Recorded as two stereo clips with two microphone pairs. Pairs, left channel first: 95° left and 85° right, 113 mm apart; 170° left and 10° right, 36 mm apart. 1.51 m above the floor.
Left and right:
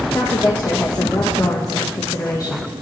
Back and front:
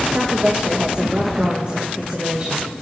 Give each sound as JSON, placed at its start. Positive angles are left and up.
{"t": 0.1, "sound": "a woman speaking", "azimuth_deg": 40, "distance_m": 1.4}